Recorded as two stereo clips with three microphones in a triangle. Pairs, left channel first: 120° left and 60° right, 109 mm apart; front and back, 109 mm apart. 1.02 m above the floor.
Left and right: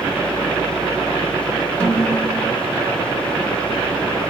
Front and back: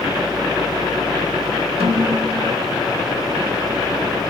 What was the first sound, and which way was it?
A snare drum, 165° right.